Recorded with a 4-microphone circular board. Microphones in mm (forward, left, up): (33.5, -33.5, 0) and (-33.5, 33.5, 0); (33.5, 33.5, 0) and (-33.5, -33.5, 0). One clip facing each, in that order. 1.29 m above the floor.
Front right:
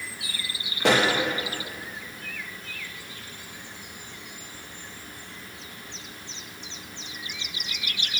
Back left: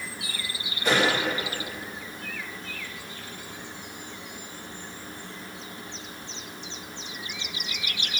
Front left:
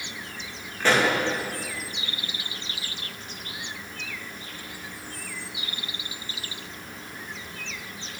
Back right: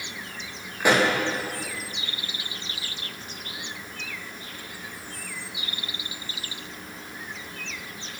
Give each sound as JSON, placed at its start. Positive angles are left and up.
{"t": 0.8, "sound": "a pop", "azimuth_deg": -55, "distance_m": 1.7}